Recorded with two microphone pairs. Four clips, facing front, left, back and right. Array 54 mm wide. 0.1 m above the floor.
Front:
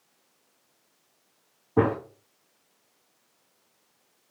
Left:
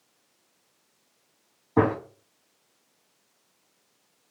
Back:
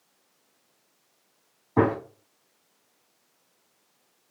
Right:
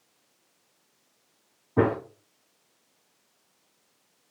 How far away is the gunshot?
About 2 m.